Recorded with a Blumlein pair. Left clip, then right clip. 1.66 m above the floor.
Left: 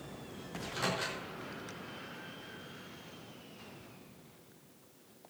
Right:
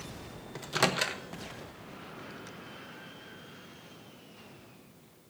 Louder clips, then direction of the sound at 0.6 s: Right 7 dB; 55° right.